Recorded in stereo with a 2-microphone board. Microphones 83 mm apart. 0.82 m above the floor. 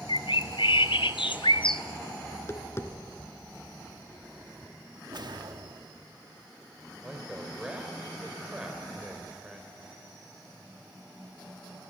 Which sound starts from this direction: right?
A whoosh, at 5.1 s.